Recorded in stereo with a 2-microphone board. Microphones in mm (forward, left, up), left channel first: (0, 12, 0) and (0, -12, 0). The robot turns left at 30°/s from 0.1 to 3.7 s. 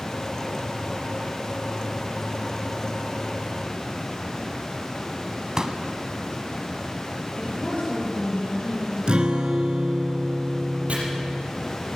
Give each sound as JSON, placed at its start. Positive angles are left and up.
{"t": 5.6, "sound": "a pop", "side_deg": -30, "distance_m": 1.1}
{"t": 7.4, "sound": "a woman speaking", "side_deg": 65, "distance_m": 5.5}
{"t": 9.1, "sound": "a guitar", "side_deg": -45, "distance_m": 1.2}
{"t": 10.9, "sound": "chopping", "side_deg": -80, "distance_m": 5.0}